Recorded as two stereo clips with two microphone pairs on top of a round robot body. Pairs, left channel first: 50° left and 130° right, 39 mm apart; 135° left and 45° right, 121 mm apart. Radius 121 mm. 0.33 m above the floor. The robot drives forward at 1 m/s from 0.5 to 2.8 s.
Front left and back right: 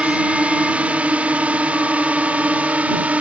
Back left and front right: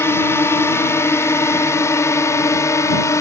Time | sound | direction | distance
0.0 | a drone | 165° right | ?